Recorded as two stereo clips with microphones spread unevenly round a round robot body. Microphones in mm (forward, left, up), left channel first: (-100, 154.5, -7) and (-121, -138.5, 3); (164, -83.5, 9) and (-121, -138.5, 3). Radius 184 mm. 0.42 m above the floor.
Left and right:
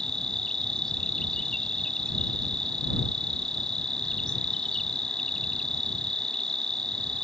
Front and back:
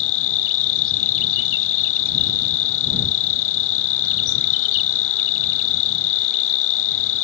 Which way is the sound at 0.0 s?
5° right.